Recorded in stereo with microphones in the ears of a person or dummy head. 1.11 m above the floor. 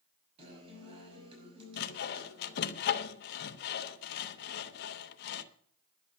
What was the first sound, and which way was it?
A guitar, 30° right (ahead or behind).